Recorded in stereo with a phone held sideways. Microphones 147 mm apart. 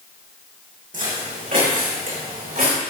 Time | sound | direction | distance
0.9 | footsteps | 60° right (ahead or behind) | 4 m